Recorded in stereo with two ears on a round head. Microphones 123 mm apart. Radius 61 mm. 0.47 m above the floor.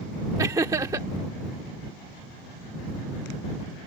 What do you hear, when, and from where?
0.4 s laughter: 25° right (ahead or behind)